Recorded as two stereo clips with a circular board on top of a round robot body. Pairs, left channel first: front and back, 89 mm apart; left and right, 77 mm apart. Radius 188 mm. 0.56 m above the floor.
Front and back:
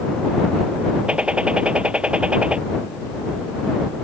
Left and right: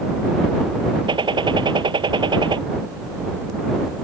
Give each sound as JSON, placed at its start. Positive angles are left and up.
{"t": 1.1, "sound": "a gunshot", "azimuth_deg": -100}